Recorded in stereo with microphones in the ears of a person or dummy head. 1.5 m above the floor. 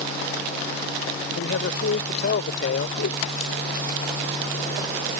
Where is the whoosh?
70° left (ahead or behind).